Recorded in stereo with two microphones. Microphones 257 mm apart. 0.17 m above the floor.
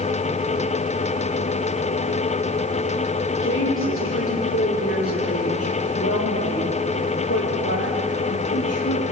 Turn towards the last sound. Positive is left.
turn(degrees=70)  # may be behind; listen again after turning